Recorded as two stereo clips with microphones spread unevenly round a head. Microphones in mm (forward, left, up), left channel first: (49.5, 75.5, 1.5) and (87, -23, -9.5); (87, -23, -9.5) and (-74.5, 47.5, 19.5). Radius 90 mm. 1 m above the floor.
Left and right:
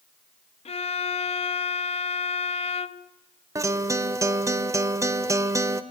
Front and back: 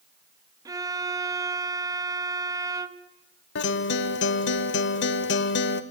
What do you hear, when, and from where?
0.7 s a violin: 85° left, 0.6 m
3.5 s a guitar: 10° right, 1.0 m